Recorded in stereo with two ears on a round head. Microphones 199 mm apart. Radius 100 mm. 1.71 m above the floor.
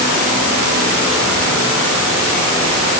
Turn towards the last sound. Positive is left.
No sound to turn to.